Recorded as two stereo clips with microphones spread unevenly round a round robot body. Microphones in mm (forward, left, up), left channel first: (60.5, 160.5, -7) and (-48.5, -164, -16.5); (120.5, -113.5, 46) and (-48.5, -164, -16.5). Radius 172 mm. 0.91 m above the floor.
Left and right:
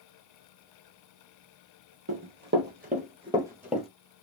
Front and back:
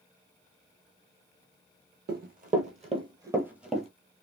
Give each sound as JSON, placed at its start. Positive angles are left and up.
{"t": 2.1, "sound": "running footsteps", "azimuth_deg": -140, "distance_m": 1.1}